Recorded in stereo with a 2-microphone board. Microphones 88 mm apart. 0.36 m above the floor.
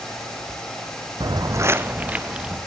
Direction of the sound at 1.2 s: 55° right (ahead or behind).